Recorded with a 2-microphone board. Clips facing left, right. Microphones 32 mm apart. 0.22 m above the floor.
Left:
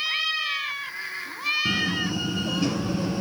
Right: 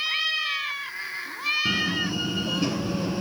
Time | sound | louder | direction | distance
1.6 | a door slam | even | centre (ahead or behind) | 3.5 m